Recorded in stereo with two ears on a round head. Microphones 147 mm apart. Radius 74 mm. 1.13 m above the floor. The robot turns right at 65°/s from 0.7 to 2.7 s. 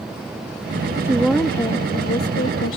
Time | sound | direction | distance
1.0 | a woman speaking | 15° right | ?